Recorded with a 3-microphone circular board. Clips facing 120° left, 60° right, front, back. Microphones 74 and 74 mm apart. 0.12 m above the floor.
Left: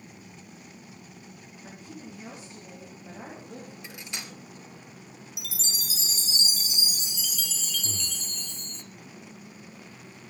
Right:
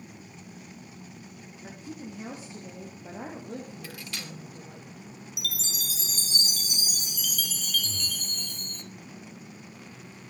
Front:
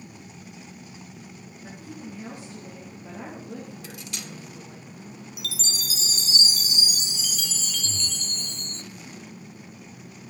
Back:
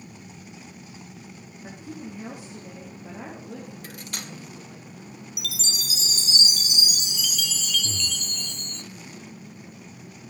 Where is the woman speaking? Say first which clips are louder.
Right 3 dB, back 2 dB; 120° right, 4 m; by 4.8 s 75° right, 5 m.